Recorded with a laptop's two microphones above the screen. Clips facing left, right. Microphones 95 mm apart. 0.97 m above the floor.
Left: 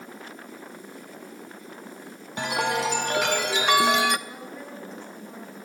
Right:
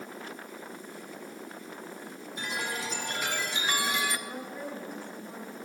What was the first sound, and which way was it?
A chime, 75° left (ahead or behind).